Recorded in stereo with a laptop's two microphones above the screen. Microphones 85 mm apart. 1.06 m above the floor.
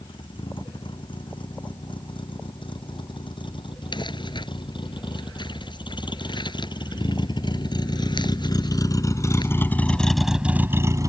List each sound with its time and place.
0.0 s a vehicle: 75° left (ahead or behind); by 11.1 s 40° right (ahead or behind)
3.9 s crumpling: 65° left (ahead or behind)